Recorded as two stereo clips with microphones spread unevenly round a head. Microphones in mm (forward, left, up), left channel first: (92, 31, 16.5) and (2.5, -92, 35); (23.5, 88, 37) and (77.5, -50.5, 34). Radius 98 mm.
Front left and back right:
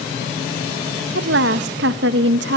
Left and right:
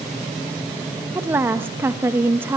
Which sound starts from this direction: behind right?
A woman speaking, at 1.1 s.